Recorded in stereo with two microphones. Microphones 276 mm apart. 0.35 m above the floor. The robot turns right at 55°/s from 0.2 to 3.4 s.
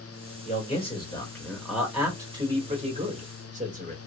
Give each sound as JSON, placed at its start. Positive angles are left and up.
{"t": 0.5, "sound": "a man speaking", "side_deg": 25, "distance_m": 1.3}